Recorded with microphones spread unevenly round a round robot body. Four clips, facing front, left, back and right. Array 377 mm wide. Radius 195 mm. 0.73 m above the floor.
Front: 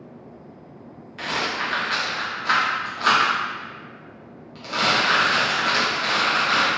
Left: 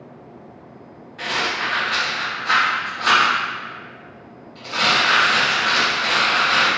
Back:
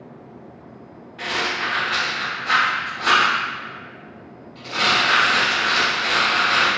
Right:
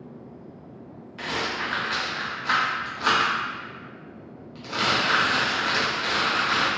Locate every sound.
1.2 s a rattle: 60° right, 1.5 m